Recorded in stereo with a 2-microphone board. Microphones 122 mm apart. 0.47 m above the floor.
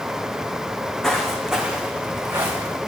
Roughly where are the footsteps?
Centre.